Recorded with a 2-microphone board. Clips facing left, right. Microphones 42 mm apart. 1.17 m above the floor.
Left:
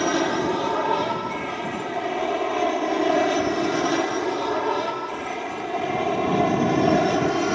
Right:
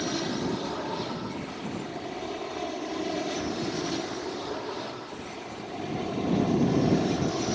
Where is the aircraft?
55° left (ahead or behind); by 7.5 s 65° left (ahead or behind).